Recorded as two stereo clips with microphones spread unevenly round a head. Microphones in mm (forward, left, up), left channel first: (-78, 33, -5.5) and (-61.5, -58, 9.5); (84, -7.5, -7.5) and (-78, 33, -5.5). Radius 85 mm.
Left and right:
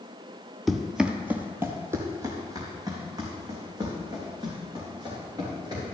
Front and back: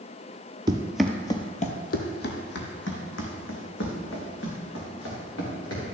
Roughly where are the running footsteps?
Behind right.